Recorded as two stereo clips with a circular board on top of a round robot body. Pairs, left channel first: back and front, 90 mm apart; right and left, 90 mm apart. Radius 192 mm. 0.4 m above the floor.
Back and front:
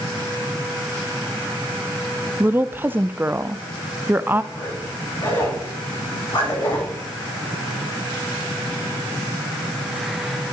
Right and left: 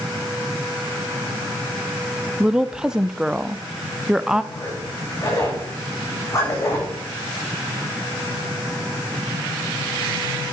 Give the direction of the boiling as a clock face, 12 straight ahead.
No boiling in this recording.